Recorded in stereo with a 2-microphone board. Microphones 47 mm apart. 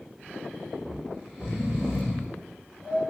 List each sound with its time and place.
0.8 s snoring: 15° right (ahead or behind), 1.2 m